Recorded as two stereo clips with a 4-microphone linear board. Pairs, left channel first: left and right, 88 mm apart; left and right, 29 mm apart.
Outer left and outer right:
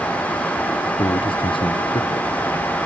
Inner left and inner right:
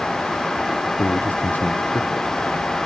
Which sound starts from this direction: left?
A man speaking, at 1.0 s.